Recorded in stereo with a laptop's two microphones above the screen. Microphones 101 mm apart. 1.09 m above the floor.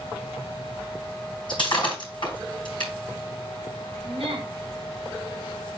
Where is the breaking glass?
55° left (ahead or behind), 3.5 m.